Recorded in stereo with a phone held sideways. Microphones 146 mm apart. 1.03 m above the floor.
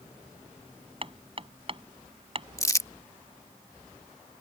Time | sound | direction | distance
1.0 | hammering | 40° right (ahead or behind) | ?
2.6 | crumpling | 25° left (ahead or behind) | ?